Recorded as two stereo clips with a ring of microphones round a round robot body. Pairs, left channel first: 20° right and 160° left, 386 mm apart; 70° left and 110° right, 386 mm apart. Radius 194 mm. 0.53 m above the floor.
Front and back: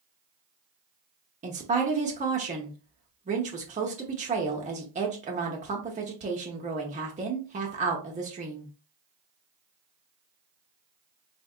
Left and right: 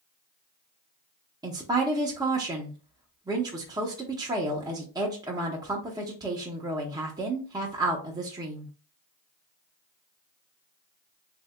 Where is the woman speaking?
175° right, 0.6 m.